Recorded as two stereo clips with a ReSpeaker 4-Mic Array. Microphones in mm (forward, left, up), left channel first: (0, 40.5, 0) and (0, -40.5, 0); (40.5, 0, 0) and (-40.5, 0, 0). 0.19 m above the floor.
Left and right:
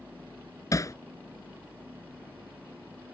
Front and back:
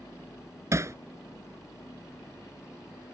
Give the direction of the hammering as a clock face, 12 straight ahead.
8 o'clock.